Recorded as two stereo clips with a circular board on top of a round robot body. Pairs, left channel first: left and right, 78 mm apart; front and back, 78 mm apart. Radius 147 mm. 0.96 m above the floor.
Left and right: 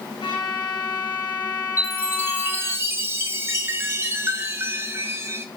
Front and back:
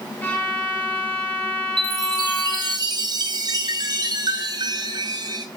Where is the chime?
150° right, 0.8 m.